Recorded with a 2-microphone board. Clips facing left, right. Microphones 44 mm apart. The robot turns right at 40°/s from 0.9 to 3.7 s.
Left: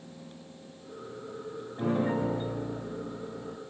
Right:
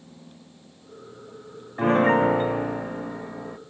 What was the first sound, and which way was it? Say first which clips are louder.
A piano: right 10 dB; 120° right.